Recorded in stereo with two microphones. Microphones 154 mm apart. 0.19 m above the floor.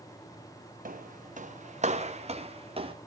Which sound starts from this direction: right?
Footsteps, at 0.8 s.